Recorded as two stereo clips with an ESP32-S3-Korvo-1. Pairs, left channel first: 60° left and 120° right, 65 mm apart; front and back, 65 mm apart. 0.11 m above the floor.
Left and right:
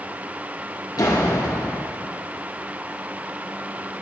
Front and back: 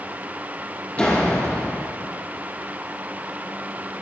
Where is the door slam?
70° left, 3.5 m.